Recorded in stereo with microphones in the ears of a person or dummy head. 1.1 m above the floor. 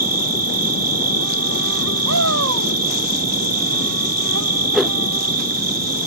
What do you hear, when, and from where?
0.0 s an insect: 80° right
2.0 s a shout: 75° right (ahead or behind)
4.7 s a whoosh: 5° right (ahead or behind)